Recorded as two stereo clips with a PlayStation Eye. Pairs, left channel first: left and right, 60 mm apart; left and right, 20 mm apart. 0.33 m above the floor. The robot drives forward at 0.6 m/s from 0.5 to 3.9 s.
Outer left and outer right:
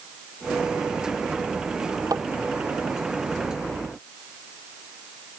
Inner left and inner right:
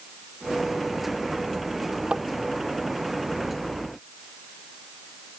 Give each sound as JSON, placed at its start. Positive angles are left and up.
{"t": 2.1, "sound": "tapping", "side_deg": -80}